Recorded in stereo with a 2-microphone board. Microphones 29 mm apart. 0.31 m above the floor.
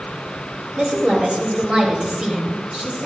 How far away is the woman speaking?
About 1.5 m.